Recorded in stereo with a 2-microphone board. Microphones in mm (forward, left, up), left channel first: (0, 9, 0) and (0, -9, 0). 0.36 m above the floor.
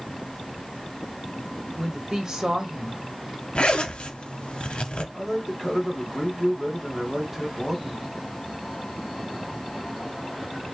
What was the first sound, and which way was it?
A woman speaking, 35° right (ahead or behind).